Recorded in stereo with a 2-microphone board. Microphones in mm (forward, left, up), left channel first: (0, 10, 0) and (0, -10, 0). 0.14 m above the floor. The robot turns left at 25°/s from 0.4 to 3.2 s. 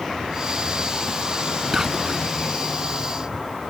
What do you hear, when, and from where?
1.7 s whispering: 25° right (ahead or behind); by 2.3 s 20° right (ahead or behind)